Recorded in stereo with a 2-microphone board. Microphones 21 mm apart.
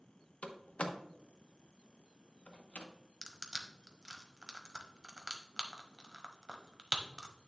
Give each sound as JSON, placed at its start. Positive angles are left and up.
{"t": 0.4, "sound": "a door slam", "side_deg": 80, "distance_m": 0.9}
{"t": 3.2, "sound": "crushing", "side_deg": -30, "distance_m": 1.0}